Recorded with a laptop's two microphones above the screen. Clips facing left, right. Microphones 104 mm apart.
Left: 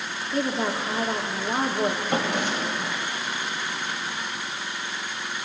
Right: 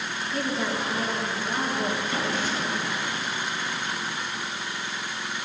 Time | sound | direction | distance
0.3 | a woman speaking | 35° left (ahead or behind) | 2 m
2.1 | a drawer | 60° left (ahead or behind) | 2.5 m